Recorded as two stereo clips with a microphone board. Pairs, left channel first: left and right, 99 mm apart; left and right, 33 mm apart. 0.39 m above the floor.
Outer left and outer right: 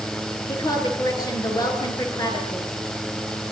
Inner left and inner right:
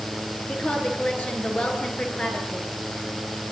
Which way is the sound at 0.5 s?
40° left (ahead or behind).